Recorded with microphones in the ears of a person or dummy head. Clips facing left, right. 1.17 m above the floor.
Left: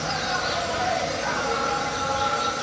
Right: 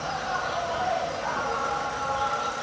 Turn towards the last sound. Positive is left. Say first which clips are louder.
# left 2 dB
turn(degrees=30)  # may be behind; listen again after turning